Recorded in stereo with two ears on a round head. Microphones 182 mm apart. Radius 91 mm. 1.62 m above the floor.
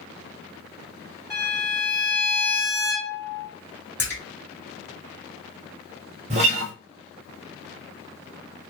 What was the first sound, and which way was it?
A violin, 15° left (ahead or behind).